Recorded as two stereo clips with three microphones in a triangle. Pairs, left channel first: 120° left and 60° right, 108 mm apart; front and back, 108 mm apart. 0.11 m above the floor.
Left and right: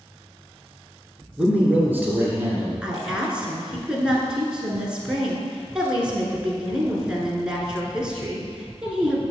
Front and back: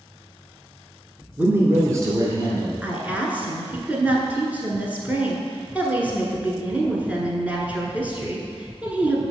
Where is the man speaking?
130° right, 1.1 m; by 2.7 s 125° right, 2.5 m.